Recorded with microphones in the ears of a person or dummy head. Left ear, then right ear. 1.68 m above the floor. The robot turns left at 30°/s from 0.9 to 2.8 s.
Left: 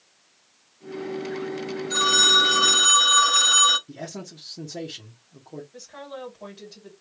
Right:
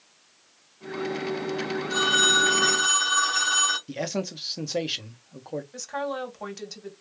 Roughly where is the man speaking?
Right.